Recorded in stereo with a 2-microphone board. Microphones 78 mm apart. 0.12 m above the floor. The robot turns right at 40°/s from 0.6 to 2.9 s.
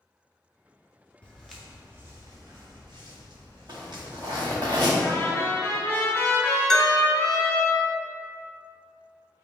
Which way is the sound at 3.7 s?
65° right (ahead or behind).